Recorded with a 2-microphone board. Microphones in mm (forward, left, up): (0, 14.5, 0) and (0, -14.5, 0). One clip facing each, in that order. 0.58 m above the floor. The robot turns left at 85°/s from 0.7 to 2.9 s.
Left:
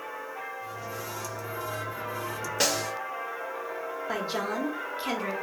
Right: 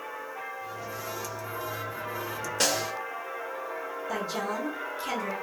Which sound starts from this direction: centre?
A snare drum, at 2.6 s.